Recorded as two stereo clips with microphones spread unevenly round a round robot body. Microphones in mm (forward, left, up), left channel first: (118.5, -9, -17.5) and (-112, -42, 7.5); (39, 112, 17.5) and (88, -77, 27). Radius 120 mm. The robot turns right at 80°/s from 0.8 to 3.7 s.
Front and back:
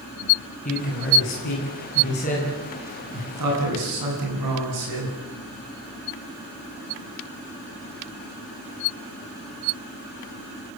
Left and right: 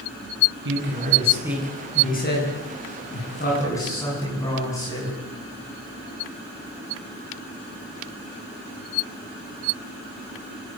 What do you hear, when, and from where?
0.7 s a man speaking: 50° right, 9.5 m; by 5.2 s 175° right, 9.5 m